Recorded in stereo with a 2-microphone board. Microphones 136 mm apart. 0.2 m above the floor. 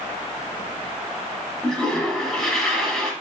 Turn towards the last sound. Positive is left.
turn(degrees=5)  # may be behind; listen again after turning